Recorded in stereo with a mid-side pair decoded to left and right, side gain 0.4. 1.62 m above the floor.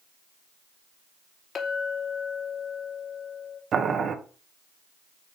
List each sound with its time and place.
1.6 s a clink: 60° left, 2.5 m
3.7 s boiling: 60° right, 1.3 m